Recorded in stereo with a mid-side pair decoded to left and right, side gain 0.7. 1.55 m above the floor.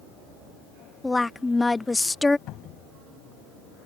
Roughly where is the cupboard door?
Ahead left.